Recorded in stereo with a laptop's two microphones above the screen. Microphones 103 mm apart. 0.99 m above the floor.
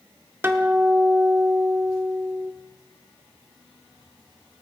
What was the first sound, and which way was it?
A guitar, 20° right (ahead or behind).